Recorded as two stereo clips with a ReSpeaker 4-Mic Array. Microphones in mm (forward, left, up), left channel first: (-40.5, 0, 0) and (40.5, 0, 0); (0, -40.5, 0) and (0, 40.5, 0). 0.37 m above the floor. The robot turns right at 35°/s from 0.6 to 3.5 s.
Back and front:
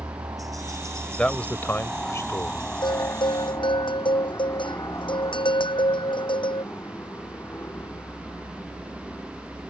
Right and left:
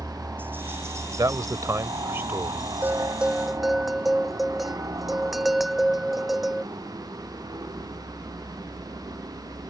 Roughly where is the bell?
Behind left.